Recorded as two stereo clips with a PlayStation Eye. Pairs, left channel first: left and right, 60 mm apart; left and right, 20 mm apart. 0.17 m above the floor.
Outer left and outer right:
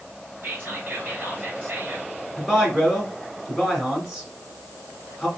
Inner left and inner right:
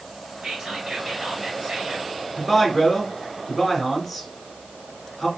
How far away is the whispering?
About 2.5 m.